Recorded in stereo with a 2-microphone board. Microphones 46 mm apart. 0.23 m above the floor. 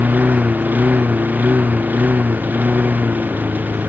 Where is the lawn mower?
40° right (ahead or behind).